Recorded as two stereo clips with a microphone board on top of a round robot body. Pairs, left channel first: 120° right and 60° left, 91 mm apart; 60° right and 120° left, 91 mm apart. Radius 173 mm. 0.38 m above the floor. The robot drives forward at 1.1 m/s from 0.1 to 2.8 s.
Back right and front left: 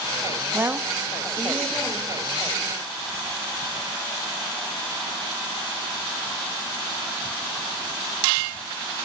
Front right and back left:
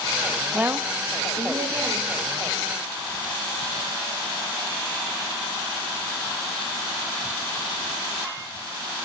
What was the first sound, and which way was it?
A woman speaking, 60° left.